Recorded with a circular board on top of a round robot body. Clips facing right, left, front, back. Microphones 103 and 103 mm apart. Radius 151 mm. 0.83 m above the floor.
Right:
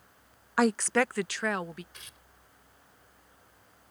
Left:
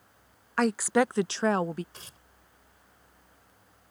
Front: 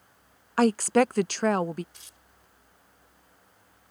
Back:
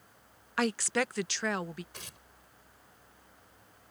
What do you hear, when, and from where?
0.6 s a woman speaking: 15° right; by 1.8 s 40° left
1.9 s tearing paper: 150° left